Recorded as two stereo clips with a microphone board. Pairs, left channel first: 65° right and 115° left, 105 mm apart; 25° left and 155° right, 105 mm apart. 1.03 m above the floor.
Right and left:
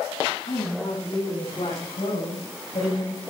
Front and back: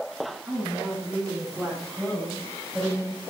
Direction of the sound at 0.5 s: 90° right.